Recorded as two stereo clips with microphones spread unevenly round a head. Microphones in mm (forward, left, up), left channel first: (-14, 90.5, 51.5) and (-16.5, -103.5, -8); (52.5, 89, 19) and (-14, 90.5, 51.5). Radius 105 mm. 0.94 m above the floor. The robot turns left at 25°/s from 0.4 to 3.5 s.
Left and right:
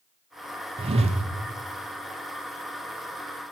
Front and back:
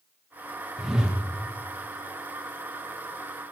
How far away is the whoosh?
About 0.7 m.